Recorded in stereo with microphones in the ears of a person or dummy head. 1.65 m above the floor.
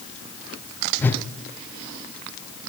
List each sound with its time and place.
1.0 s a whoosh: 5° left (ahead or behind), 0.7 m